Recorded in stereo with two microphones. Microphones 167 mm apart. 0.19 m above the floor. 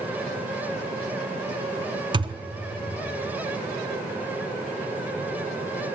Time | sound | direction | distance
2.1 | a thud | 30° right (ahead or behind) | 0.6 m